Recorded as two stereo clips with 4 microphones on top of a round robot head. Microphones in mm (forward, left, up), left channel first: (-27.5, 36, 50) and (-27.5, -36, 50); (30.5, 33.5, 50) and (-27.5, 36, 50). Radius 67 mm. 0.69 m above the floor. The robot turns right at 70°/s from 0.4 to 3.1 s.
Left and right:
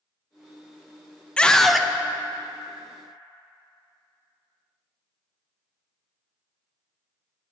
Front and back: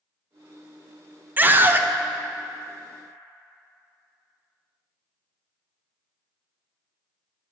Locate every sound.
1.4 s a scream: 155° left, 0.5 m; by 1.9 s 170° right, 0.5 m